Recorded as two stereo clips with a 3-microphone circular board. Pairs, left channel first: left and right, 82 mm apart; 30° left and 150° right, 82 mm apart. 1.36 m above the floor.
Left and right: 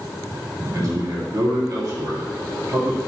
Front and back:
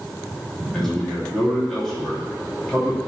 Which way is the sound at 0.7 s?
55° right.